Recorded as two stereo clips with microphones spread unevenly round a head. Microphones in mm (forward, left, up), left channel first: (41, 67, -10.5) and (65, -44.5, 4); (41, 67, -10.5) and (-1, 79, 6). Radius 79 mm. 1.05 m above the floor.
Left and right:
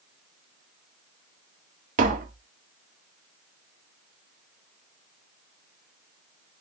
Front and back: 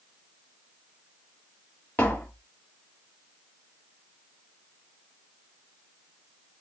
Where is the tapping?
85° right, 0.8 m.